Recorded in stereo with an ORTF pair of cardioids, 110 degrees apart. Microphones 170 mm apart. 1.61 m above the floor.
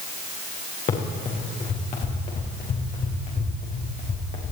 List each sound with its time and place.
0.9 s running footsteps: 45° left, 6 m